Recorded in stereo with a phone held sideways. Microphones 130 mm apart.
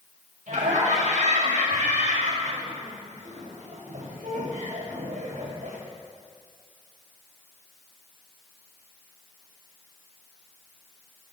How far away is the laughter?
About 5.5 m.